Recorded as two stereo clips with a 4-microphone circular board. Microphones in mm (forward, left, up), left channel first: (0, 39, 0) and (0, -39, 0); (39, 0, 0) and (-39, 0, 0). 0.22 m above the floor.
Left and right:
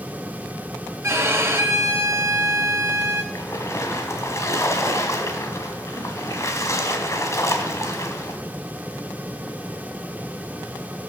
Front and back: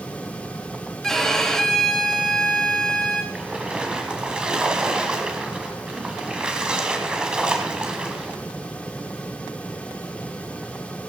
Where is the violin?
80° right, 1.3 m.